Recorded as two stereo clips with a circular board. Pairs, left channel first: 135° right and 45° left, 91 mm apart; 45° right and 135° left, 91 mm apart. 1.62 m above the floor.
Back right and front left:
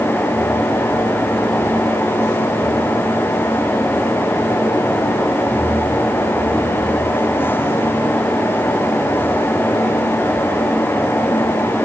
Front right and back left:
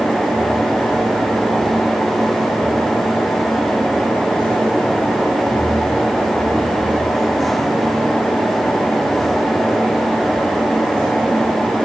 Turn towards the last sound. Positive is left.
No sound to turn to.